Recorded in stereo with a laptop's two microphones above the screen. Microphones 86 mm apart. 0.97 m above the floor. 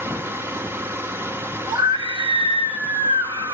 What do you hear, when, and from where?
0.0 s a machine running: 25° right (ahead or behind), 1.1 m
1.7 s a scream: 65° right (ahead or behind), 1.8 m